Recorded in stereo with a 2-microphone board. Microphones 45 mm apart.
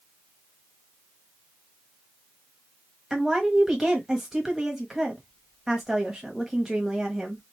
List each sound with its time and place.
3.1 s a woman speaking: 10° right (ahead or behind), 1.1 m